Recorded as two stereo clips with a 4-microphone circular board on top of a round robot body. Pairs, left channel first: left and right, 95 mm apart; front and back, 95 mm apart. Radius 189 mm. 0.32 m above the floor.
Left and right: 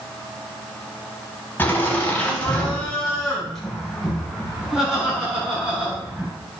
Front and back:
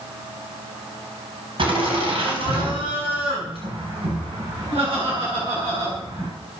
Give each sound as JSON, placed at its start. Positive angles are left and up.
{"t": 1.6, "sound": "laughter", "azimuth_deg": 160, "distance_m": 5.0}